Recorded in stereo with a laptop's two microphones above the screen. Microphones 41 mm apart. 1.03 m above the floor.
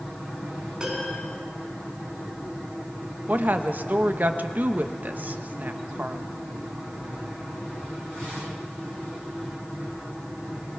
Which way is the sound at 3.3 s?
50° right (ahead or behind).